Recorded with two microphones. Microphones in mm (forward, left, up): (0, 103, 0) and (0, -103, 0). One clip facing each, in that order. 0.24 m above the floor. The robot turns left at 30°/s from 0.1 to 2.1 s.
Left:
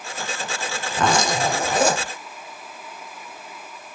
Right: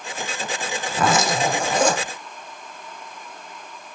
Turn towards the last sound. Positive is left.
turn(degrees=160)